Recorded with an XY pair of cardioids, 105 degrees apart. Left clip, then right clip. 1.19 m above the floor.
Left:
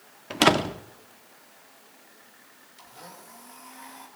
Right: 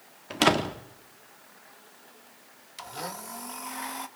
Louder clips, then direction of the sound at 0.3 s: Left 3 dB; 15° left.